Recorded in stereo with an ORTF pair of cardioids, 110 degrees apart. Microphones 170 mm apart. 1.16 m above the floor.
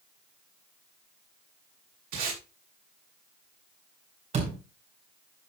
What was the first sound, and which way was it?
Tape being pulled, 60° right.